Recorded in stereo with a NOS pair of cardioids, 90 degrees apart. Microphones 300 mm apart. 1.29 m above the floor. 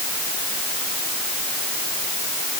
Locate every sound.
Only background noise.